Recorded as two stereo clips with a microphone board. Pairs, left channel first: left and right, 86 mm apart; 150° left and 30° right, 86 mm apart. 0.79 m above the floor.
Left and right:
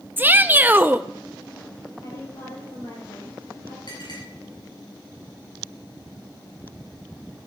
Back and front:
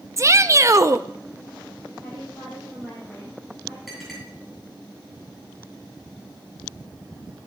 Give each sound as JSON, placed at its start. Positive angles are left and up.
{"t": 0.2, "sound": "a shout", "azimuth_deg": -40, "distance_m": 0.6}
{"t": 2.0, "sound": "a woman speaking", "azimuth_deg": 75, "distance_m": 5.0}
{"t": 3.9, "sound": "a clink", "azimuth_deg": 60, "distance_m": 8.5}